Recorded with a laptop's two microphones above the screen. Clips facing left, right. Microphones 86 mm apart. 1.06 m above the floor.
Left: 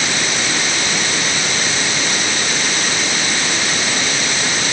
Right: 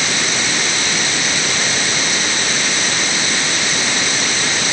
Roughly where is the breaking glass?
No breaking glass in this recording.